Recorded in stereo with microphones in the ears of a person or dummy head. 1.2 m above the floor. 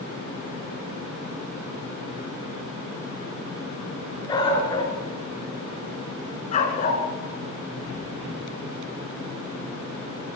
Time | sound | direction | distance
4.3 | a dog barking | 25° left (ahead or behind) | 4.5 m